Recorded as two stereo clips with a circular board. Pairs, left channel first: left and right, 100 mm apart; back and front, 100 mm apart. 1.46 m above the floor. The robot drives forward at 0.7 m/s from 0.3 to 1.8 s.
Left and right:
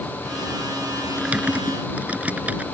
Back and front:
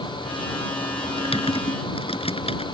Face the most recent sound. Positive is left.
turn(degrees=-165)